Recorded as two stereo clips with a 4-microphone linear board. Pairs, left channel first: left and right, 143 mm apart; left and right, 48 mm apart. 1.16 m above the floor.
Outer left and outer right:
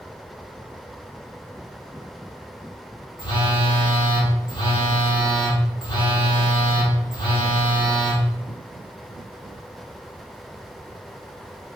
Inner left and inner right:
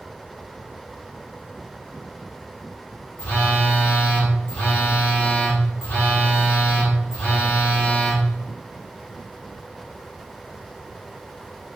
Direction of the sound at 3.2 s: 35° left (ahead or behind).